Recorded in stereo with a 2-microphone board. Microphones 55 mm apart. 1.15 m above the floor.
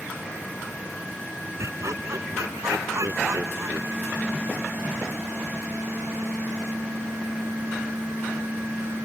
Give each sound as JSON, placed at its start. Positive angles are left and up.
{"t": 1.6, "sound": "laughter", "side_deg": -65}